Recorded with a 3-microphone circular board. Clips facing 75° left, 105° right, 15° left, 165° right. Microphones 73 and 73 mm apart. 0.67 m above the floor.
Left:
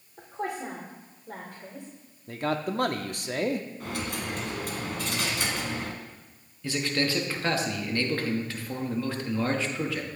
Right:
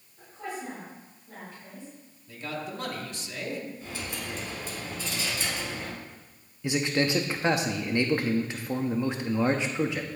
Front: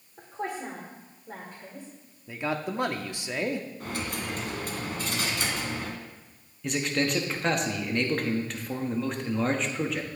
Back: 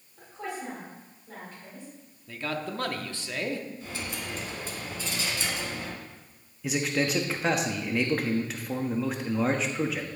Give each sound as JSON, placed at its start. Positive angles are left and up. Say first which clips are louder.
{"t": 0.2, "sound": "a woman speaking", "louder": "left 4 dB, front 3 dB", "azimuth_deg": 70, "distance_m": 2.5}
{"t": 2.3, "sound": "a man speaking", "louder": "left 7 dB, front 3 dB", "azimuth_deg": 85, "distance_m": 0.9}
{"t": 3.8, "sound": "a dropped coin", "louder": "left 4 dB, front 3 dB", "azimuth_deg": 50, "distance_m": 1.8}
{"t": 6.6, "sound": "a man speaking", "louder": "right 2 dB, even", "azimuth_deg": -85, "distance_m": 1.0}